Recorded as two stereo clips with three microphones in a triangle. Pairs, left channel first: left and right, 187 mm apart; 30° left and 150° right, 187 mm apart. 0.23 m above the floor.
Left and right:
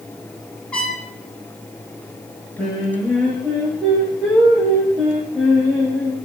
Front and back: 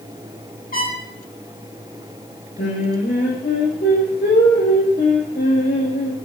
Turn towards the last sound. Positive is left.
turn(degrees=5)